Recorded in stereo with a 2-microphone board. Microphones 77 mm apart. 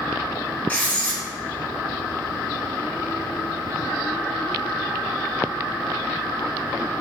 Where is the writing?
20° left (ahead or behind), 0.8 m.